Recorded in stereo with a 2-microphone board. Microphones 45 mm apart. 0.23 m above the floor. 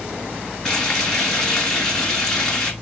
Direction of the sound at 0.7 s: 10° left (ahead or behind).